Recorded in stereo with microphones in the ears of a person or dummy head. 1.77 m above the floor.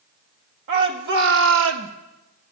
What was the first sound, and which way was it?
A shout, 60° right (ahead or behind).